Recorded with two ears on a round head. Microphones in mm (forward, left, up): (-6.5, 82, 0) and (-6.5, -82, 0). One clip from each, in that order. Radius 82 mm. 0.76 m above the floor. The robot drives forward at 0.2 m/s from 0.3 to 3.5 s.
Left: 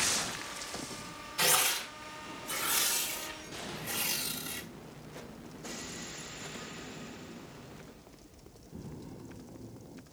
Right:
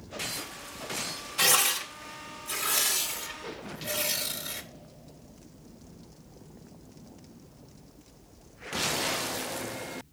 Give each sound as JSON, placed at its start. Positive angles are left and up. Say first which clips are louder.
{"t": 1.4, "sound": "tearing paper", "louder": "right 4 dB", "side_deg": -20, "distance_m": 1.5}